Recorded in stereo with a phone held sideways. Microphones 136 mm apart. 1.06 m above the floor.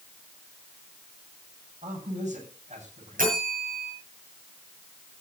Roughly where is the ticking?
I don't hear ticking.